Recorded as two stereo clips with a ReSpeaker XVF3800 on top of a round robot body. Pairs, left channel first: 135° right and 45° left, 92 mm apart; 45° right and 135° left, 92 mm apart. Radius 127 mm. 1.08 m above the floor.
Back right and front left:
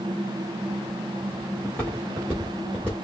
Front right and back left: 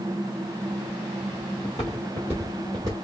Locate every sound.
1.6 s footsteps: 60° right, 1.1 m; by 3.0 s 110° left, 1.0 m